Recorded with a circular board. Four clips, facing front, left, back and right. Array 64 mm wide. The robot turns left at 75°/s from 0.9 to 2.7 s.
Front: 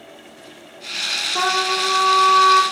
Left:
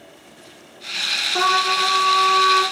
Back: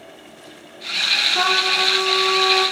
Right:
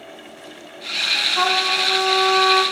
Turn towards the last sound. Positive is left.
turn(degrees=-30)